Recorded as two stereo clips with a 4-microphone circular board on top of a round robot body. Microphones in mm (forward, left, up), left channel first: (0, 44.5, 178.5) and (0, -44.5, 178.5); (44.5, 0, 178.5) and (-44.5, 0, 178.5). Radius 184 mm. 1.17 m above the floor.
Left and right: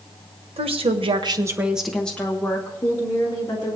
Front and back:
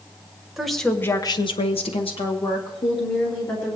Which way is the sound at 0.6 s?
95° right.